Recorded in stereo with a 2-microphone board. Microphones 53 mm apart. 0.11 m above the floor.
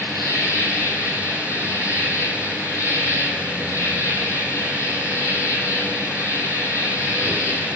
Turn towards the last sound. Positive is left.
turn(degrees=70)  # may be behind; listen again after turning